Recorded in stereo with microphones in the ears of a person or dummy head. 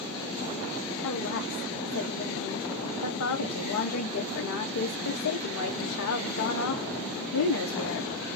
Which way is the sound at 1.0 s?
75° left (ahead or behind).